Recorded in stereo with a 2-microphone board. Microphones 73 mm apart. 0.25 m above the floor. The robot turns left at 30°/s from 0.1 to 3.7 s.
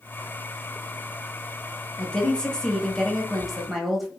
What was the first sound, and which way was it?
A woman speaking, 15° left (ahead or behind).